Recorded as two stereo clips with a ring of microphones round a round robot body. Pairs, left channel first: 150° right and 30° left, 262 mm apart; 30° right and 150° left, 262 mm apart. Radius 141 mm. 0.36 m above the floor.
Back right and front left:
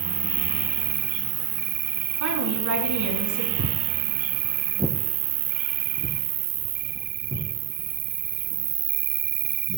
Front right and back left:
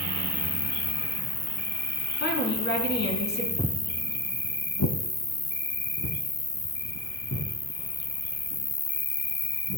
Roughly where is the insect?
Ahead left.